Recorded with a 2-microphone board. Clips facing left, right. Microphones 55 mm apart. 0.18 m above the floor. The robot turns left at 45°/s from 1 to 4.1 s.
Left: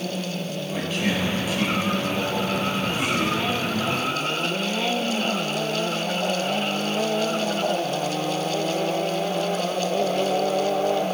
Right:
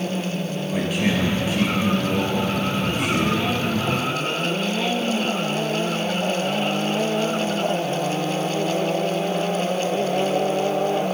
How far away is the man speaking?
About 3 m.